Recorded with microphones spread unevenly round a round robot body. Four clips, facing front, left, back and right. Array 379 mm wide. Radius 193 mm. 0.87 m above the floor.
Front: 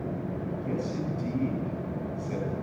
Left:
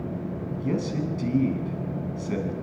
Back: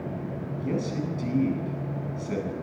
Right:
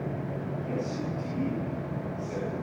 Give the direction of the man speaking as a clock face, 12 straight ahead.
8 o'clock.